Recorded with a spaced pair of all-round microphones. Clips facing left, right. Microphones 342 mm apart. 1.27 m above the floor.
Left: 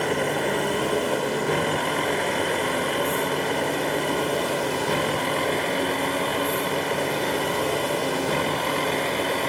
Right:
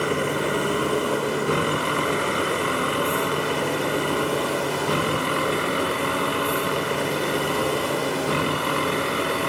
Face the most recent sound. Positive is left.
turn(degrees=-15)  # may be behind; listen again after turning